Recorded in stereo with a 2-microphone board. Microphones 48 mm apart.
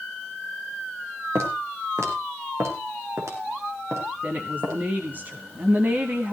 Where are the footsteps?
85° right, 4 m; by 4.8 s 80° right, 5.5 m.